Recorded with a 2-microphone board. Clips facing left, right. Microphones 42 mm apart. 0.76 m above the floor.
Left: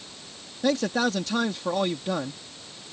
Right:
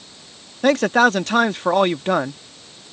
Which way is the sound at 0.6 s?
55° right (ahead or behind).